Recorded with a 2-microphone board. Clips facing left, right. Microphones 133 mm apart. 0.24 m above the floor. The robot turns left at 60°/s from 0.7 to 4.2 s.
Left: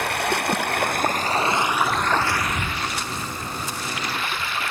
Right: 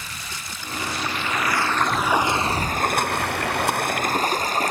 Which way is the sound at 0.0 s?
75° left.